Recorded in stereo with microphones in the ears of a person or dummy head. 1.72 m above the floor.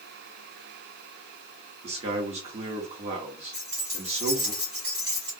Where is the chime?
I don't hear a chime.